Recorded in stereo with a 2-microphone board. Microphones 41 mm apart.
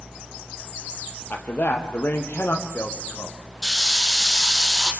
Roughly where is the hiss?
Centre.